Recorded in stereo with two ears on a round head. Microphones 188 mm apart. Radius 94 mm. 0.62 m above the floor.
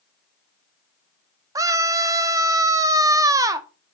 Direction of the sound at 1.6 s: 15° right (ahead or behind).